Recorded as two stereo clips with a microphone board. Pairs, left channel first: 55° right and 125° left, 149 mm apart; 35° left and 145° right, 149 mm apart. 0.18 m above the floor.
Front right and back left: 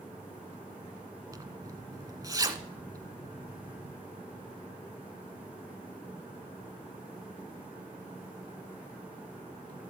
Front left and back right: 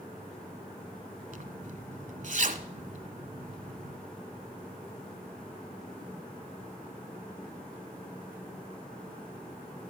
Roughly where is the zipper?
Behind.